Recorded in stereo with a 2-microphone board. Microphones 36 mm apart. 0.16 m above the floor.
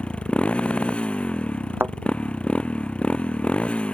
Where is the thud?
80° right.